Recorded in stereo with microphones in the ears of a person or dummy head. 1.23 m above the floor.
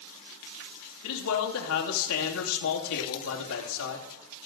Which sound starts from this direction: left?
A man speaking, at 1.0 s.